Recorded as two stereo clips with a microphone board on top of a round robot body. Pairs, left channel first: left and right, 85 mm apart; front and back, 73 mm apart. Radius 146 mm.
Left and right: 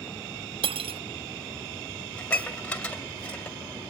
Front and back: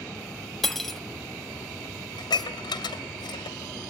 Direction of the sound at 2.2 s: 15° left.